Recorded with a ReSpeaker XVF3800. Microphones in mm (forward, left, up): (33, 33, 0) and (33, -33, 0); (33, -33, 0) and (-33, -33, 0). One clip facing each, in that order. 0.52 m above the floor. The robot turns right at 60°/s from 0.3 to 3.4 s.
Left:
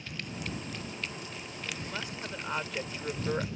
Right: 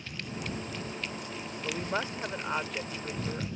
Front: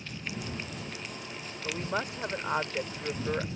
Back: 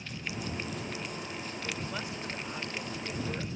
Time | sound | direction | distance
1.6 | a woman speaking | 65° right | ?